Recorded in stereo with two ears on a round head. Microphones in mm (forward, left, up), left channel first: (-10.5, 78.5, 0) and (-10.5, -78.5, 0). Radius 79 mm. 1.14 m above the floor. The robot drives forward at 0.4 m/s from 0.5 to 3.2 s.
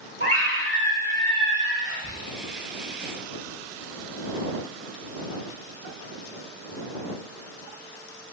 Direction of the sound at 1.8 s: 45° left (ahead or behind).